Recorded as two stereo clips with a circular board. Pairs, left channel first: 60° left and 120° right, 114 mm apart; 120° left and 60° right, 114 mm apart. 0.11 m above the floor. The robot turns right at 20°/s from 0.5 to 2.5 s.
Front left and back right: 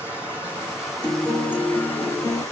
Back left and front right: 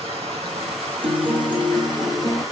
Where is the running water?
40° right, 1.9 m; by 2.5 s straight ahead, 1.9 m.